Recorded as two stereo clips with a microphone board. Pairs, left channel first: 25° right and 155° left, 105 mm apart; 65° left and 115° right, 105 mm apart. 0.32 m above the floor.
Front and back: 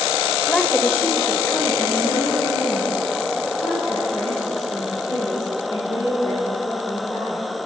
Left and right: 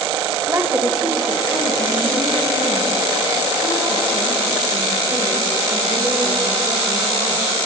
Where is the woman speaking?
100° right, 1.1 m; by 7.4 s 35° left, 7 m.